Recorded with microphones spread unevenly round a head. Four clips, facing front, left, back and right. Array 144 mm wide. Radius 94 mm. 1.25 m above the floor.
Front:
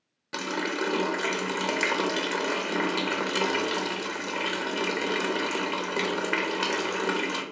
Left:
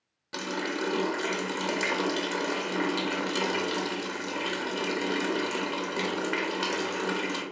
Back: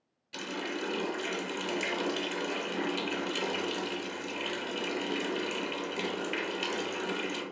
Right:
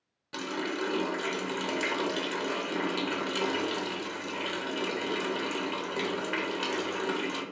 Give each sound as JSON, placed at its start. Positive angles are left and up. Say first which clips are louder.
{"t": 0.3, "sound": "a running tap", "louder": "left 1 dB, front 7 dB", "azimuth_deg": 10, "distance_m": 0.8}